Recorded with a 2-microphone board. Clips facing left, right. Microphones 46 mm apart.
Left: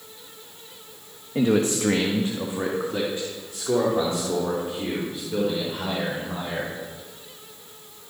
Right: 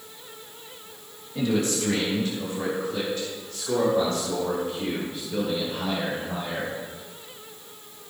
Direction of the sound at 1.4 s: 40° left (ahead or behind).